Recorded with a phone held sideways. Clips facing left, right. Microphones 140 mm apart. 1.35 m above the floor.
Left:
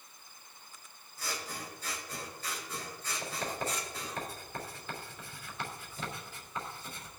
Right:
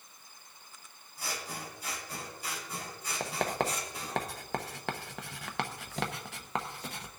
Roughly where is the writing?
Right.